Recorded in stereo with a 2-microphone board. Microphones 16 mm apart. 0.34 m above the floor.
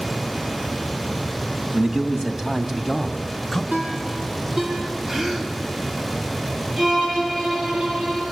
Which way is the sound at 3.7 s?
40° right (ahead or behind).